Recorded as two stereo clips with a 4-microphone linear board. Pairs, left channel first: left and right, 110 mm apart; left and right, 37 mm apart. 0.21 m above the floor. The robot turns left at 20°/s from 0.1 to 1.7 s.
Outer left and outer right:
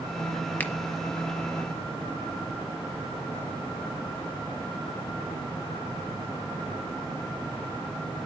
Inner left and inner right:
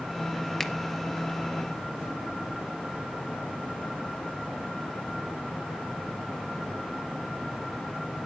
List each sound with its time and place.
0.6 s a finger snap: 15° left (ahead or behind), 0.9 m